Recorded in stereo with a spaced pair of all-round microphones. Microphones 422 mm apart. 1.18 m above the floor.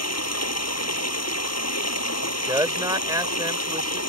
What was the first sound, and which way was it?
Running water, 35° left (ahead or behind).